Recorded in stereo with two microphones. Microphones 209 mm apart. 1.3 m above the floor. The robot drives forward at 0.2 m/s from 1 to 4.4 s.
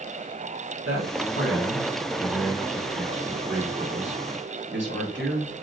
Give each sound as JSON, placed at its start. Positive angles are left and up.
{"t": 0.8, "sound": "a man speaking", "side_deg": -85, "distance_m": 2.0}